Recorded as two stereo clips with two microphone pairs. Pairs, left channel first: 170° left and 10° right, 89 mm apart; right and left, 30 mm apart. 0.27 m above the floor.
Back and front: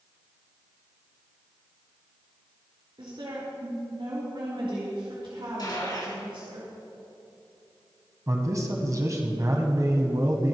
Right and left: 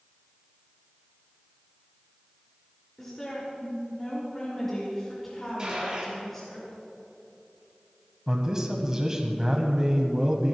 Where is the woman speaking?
10° right, 4.5 m.